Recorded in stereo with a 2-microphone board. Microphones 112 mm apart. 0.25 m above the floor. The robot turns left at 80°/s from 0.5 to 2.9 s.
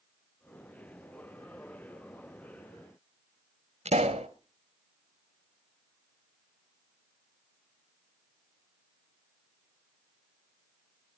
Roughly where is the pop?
Right.